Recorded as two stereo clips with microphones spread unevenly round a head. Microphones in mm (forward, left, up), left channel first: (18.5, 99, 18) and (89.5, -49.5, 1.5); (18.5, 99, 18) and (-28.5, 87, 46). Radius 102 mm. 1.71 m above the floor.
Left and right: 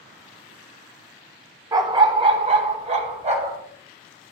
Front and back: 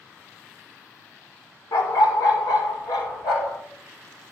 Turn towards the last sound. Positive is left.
turn(degrees=-20)